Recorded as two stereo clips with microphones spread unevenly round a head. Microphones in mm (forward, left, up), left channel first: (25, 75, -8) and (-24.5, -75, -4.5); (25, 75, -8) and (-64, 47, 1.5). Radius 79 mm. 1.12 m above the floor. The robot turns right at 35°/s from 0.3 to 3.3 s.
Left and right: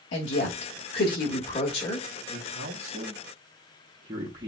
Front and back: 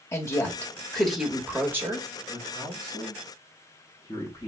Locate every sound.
0.1 s a woman speaking: 80° left, 1.4 m; by 2.1 s 140° left, 1.4 m
2.3 s a man speaking: 80° right, 0.9 m; by 4.5 s 45° right, 0.9 m